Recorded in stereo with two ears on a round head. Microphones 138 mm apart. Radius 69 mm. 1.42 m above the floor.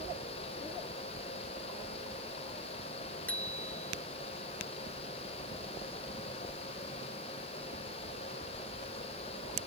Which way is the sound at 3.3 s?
10° left (ahead or behind).